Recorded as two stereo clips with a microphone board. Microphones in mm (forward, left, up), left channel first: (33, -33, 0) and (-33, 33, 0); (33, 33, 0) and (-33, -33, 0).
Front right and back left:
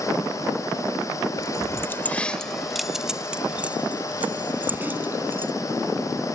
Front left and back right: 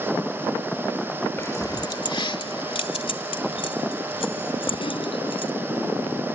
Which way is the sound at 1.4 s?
10° right.